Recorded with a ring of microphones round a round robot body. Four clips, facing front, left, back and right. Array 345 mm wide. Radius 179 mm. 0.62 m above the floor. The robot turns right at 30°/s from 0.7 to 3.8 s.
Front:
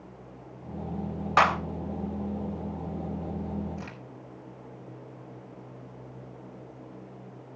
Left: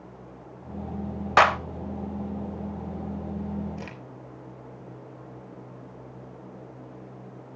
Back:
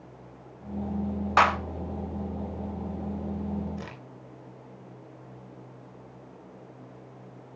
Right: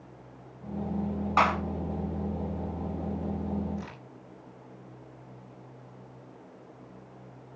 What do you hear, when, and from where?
1.4 s a clap: 90° left, 2 m; by 1.6 s 95° left, 2 m
3.8 s a crack: 125° left, 3.5 m